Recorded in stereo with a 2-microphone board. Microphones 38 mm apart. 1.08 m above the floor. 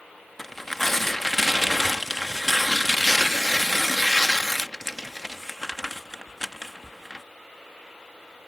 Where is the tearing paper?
5° left (ahead or behind).